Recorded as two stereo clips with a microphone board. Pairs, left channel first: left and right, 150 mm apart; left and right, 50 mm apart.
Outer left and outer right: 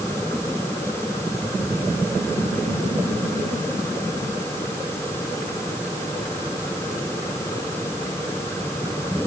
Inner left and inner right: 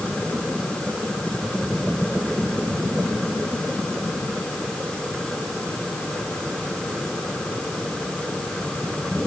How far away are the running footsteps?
I don't hear running footsteps.